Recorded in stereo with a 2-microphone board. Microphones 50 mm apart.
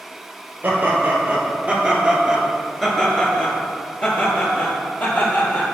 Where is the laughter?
40° right (ahead or behind), 1.9 m; by 5.8 s 50° left (ahead or behind), 2.5 m.